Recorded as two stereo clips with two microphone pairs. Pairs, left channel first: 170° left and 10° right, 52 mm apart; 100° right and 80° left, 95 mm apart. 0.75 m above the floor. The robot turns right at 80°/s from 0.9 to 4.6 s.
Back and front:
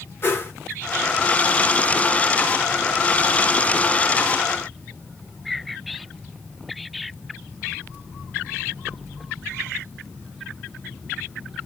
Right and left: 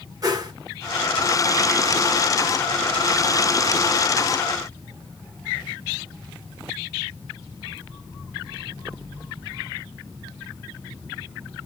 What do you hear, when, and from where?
0.2 s a whoosh: 125° left, 1.1 m